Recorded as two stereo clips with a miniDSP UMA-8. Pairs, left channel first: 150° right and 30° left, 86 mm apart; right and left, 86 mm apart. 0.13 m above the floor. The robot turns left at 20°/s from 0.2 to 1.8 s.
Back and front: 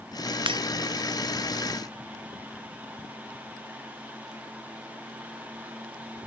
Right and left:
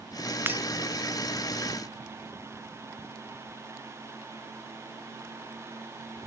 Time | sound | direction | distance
0.5 | breaking glass | 25° left | ?